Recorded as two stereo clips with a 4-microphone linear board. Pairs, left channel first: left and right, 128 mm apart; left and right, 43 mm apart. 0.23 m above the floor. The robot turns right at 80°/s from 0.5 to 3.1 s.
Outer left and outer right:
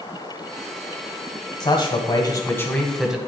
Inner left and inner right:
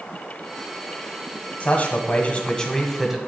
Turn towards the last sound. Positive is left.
turn(degrees=-170)